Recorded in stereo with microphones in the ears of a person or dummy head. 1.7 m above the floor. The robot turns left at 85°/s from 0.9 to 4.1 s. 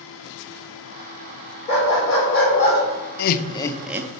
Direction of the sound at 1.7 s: 125° left.